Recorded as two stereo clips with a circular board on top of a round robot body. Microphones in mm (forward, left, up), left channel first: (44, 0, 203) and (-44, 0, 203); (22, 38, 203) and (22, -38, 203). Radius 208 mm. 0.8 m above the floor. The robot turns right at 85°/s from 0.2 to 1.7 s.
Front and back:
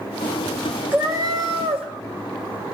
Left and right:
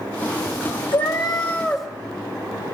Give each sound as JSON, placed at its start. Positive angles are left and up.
{"t": 0.9, "sound": "a cat meowing", "azimuth_deg": 110, "distance_m": 0.5}